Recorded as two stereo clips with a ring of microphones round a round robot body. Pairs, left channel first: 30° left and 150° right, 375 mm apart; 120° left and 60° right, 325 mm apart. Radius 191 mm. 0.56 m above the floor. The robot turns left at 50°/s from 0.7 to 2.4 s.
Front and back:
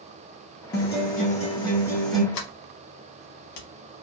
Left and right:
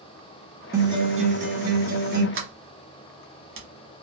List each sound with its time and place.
0.7 s a guitar: 10° left, 1.2 m; by 2.2 s 65° right, 1.2 m
2.3 s a sliding door: 5° right, 1.1 m